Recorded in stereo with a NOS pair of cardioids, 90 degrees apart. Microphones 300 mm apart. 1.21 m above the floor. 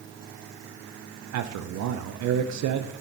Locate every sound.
1.3 s a man speaking: 65° right, 0.7 m